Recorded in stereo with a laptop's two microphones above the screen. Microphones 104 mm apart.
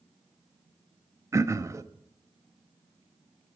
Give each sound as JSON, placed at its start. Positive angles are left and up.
{"t": 1.3, "sound": "throat clearing", "side_deg": -30, "distance_m": 0.5}